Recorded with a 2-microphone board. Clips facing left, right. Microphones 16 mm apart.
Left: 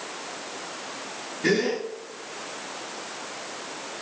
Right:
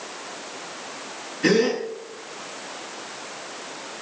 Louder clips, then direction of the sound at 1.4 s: Right 4 dB; 55° right (ahead or behind).